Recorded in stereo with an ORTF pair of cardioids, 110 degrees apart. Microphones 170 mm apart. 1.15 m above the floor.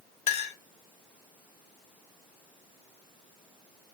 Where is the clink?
45° left, 0.7 m.